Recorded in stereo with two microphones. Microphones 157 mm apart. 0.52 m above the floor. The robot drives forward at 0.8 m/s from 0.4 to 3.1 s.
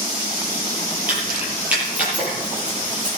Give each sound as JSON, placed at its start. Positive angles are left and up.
{"t": 1.1, "sound": "keys jangling", "side_deg": -10, "distance_m": 9.5}